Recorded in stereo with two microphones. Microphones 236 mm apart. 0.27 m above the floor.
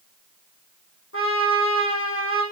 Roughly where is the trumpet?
Left.